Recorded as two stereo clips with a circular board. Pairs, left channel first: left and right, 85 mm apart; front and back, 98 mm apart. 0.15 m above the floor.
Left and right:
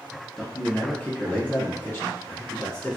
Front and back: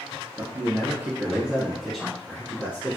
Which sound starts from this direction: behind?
A man speaking, at 0.4 s.